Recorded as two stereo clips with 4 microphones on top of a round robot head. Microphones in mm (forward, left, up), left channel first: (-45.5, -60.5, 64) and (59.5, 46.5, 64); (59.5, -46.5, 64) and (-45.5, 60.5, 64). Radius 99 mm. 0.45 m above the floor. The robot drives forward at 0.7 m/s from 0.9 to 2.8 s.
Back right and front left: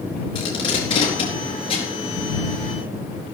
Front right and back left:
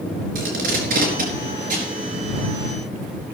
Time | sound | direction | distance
0.3 | tape being pulled | 165° left | 4 m